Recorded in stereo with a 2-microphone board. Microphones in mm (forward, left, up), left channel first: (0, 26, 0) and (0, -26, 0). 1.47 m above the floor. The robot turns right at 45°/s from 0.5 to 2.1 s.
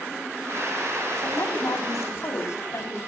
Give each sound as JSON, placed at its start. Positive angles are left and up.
{"t": 1.2, "sound": "a woman speaking", "azimuth_deg": 70, "distance_m": 3.5}